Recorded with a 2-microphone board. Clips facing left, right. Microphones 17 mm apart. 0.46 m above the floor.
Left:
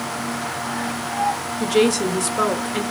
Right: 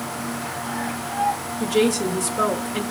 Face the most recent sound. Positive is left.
turn(degrees=30)  # may be behind; listen again after turning